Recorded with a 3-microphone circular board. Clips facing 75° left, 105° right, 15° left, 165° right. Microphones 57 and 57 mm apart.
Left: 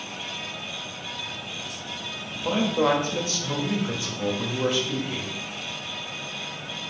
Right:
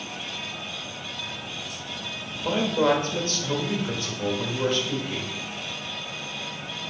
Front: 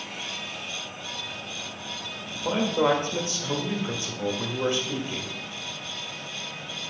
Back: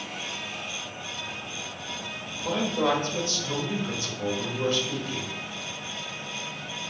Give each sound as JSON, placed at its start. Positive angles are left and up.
{"t": 2.3, "sound": "a man speaking", "azimuth_deg": 5, "distance_m": 1.2}